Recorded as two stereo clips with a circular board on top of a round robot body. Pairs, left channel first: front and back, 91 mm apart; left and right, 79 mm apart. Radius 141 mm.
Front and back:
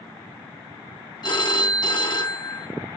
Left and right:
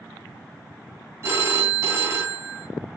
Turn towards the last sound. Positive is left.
turn(degrees=-35)